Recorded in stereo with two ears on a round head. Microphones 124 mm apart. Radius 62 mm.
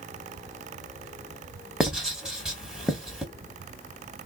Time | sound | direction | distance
1.8 | writing | 5° right (ahead or behind) | 1.2 m